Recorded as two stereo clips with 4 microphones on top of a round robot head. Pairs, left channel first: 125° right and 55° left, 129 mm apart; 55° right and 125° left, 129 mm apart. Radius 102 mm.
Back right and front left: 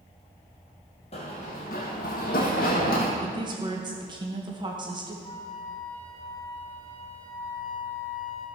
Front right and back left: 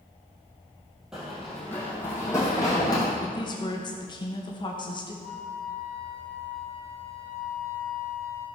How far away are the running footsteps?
About 2.0 m.